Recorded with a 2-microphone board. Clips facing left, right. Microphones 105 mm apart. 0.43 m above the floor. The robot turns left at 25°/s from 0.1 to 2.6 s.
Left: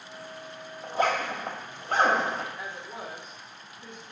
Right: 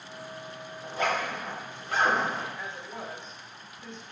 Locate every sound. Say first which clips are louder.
0.8 s a zipper: left 3 dB; 35° left (ahead or behind), 1.3 m; by 2.5 s 65° left (ahead or behind), 1.3 m
2.6 s a woman speaking: even; 15° left (ahead or behind), 1.4 m